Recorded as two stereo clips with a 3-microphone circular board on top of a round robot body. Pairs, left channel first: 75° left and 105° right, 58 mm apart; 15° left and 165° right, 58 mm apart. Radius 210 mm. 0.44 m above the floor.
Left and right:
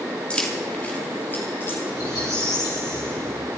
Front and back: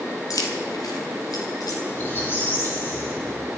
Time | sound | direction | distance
0.3 | keys jangling | straight ahead | 2.5 m
1.9 | a squeak | 65° left | 4 m